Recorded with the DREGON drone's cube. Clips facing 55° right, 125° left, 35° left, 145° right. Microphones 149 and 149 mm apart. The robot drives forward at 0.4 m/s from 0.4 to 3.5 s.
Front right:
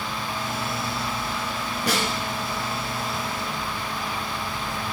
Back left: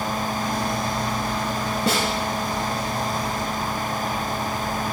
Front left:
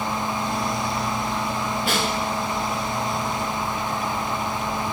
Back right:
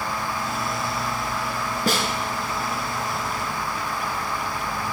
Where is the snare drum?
Straight behind, 1.5 m.